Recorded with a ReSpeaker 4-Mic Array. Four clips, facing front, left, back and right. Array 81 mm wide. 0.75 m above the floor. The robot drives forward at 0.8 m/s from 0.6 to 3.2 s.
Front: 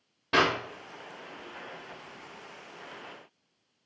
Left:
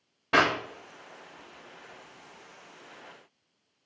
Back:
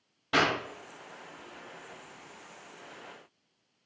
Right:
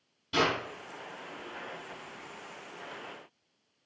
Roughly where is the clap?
Ahead left.